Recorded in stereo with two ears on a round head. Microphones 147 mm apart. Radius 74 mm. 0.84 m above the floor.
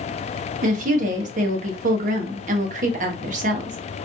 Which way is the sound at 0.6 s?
50° right (ahead or behind).